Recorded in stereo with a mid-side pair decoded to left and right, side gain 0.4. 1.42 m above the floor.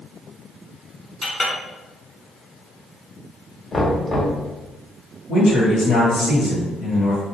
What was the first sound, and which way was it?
A clink, 15° left.